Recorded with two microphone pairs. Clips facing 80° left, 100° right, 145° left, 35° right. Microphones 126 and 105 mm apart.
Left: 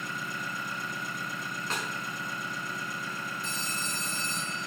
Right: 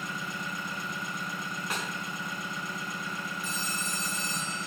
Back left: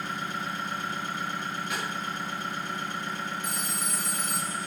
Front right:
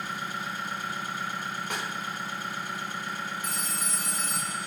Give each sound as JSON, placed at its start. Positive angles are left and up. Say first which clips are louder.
{"t": 0.0, "sound": "an engine running", "louder": "even, back left 1 dB", "azimuth_deg": -120, "distance_m": 3.0}
{"t": 1.7, "sound": "a snare drum", "louder": "even, back left 1 dB", "azimuth_deg": -20, "distance_m": 4.0}
{"t": 3.4, "sound": "a phone ringing", "louder": "right 1 dB, back left 1 dB", "azimuth_deg": -20, "distance_m": 2.5}